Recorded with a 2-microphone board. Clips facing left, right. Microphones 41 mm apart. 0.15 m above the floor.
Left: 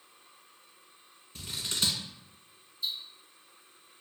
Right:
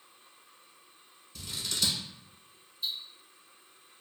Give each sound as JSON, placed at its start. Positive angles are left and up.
{"t": 1.4, "sound": "scissors", "side_deg": 35, "distance_m": 0.7}
{"t": 2.8, "sound": "ticking", "side_deg": -30, "distance_m": 1.3}